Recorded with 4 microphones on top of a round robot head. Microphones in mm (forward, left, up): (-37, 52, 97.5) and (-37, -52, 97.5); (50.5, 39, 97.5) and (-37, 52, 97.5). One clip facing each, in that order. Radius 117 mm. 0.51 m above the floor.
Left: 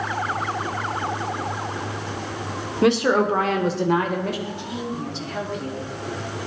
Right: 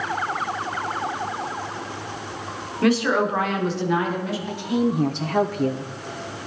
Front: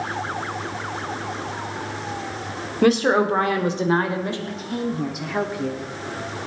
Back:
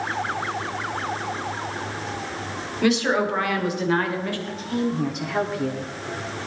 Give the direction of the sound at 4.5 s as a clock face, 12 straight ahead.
3 o'clock.